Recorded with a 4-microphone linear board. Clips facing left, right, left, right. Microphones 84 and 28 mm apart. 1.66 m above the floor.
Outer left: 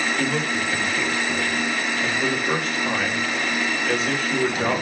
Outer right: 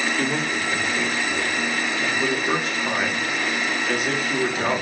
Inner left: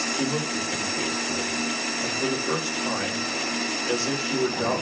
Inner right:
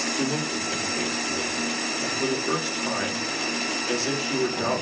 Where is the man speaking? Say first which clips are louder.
Even, even; 10° right (ahead or behind), 1.4 m.